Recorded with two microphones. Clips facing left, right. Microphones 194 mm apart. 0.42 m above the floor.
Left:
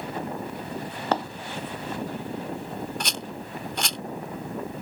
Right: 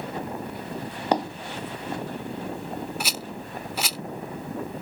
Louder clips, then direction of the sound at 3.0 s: Even; 5° right (ahead or behind).